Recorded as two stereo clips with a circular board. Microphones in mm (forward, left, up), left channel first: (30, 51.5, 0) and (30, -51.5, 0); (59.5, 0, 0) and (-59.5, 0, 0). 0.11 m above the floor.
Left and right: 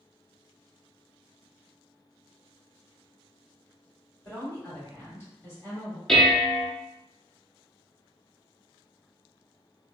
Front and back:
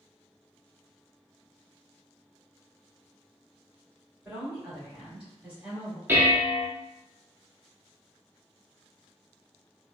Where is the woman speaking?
110° left, 1.9 m.